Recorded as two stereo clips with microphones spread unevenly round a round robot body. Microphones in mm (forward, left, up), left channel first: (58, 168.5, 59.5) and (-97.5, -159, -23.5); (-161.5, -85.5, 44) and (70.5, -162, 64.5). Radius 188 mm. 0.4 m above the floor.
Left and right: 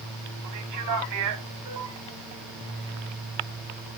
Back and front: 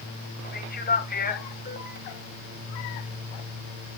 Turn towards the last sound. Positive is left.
turn(degrees=-150)